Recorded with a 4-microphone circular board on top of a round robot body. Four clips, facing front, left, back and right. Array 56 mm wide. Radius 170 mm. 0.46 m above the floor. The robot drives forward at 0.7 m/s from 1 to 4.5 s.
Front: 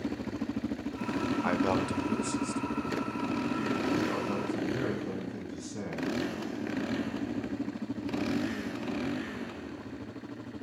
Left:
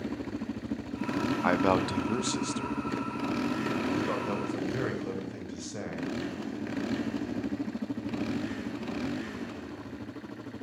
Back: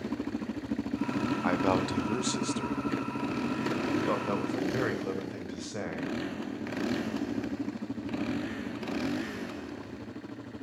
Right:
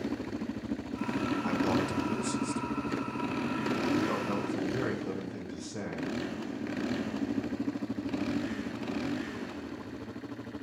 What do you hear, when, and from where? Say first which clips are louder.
1.4 s a man speaking: left 6 dB, back 2 dB; 90° left, 0.9 m; by 6.2 s 165° left, 2.5 m